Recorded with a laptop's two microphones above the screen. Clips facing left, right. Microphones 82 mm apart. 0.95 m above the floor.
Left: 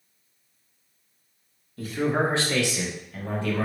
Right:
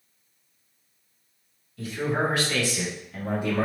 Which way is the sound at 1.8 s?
40° left (ahead or behind).